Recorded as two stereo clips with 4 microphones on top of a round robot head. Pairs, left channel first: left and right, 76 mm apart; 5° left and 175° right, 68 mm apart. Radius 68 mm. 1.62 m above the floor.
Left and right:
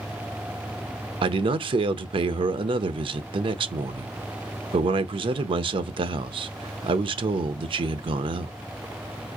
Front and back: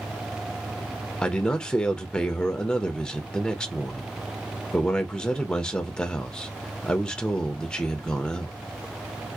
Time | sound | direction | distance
1.2 | a man speaking | 75° right | 0.6 m